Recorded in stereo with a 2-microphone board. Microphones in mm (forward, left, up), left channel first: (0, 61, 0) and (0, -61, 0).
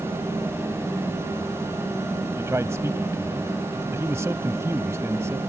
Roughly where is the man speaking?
Right.